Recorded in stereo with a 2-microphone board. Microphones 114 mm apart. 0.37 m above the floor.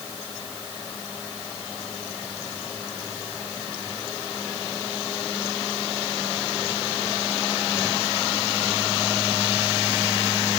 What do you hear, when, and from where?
Only background noise.